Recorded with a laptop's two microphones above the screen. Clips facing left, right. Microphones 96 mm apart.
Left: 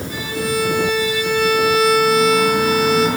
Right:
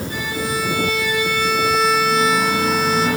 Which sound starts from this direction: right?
A violin, at 0.1 s.